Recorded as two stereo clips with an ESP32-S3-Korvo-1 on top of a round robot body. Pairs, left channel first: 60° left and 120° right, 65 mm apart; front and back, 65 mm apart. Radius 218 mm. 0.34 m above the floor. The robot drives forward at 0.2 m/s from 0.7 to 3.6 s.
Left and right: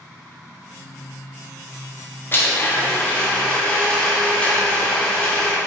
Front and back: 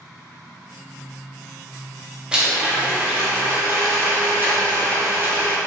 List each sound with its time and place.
2.3 s a blender: 110° left, 0.7 m; by 5.6 s 130° left, 0.8 m